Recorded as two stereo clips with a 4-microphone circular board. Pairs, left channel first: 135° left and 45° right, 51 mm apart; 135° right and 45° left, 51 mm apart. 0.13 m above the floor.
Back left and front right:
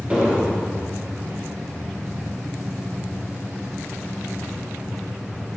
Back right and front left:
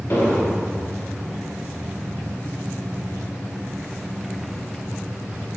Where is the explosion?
105° right, 2.5 m.